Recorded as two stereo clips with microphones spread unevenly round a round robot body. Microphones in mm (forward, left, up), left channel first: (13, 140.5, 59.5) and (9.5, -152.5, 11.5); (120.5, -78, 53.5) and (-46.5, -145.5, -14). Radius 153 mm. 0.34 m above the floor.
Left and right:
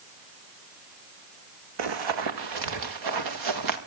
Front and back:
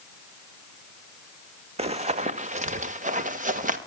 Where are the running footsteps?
95° right, 1.2 m; by 3.8 s 110° right, 3 m.